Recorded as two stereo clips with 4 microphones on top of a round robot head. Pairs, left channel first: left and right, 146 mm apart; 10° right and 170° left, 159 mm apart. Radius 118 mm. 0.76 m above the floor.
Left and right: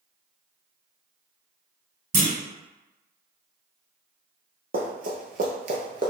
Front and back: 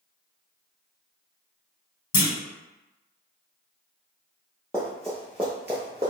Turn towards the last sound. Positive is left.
turn(degrees=-130)